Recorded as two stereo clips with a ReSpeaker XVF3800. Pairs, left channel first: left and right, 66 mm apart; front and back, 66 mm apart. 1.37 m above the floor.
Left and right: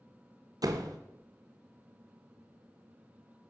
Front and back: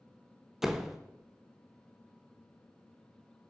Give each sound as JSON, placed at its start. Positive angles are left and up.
{"t": 0.6, "sound": "a door slam", "azimuth_deg": -95, "distance_m": 0.6}